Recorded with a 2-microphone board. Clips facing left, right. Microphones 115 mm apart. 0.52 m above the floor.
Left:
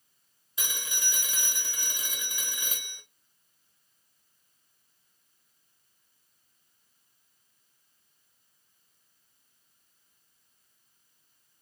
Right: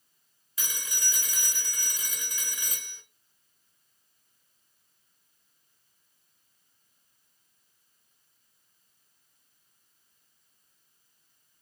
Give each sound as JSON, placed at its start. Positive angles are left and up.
{"t": 0.6, "sound": "a phone ringing", "side_deg": 25, "distance_m": 1.2}